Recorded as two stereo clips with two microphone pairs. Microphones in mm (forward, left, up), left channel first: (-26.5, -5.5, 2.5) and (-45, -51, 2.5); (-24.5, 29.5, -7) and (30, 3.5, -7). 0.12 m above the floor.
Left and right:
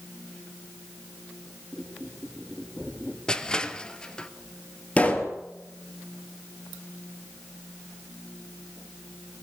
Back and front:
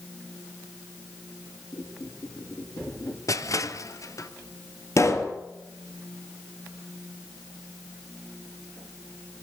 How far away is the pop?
About 3 m.